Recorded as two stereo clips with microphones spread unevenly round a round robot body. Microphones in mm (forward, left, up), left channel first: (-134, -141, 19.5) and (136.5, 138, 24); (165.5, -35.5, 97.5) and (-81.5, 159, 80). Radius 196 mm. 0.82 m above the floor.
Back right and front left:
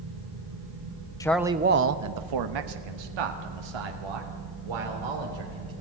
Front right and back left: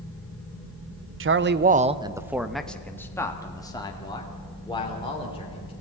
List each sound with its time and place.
1.2 s a man speaking: 150° left, 0.8 m; by 5.7 s 35° left, 4 m